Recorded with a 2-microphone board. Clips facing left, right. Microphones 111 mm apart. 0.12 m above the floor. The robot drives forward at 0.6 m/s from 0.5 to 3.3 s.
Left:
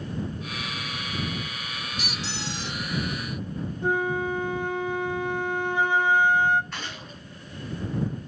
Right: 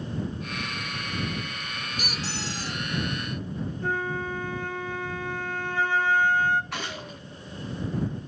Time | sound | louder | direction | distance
2.0 | a squeak | right 1 dB | 50° right (ahead or behind) | 1.2 m
3.8 | a flute | left 5 dB | 15° left (ahead or behind) | 0.8 m
6.7 | a gunshot | right 3 dB | 75° right (ahead or behind) | 6 m